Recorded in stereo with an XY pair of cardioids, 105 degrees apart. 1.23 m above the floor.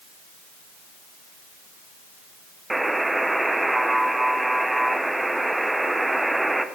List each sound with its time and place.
2.7 s a buzzer: 10° right, 0.5 m